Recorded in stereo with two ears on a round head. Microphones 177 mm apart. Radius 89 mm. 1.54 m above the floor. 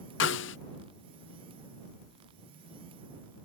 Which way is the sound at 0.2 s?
60° left (ahead or behind).